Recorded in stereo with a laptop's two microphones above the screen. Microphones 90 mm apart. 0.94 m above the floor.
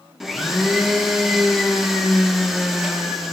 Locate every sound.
0.2 s a blender: centre (ahead or behind), 1.0 m